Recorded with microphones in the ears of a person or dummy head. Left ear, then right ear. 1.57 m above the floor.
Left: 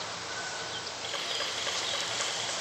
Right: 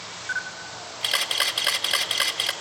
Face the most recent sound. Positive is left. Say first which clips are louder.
# right 10 dB
turn(degrees=-60)  # may be behind; listen again after turning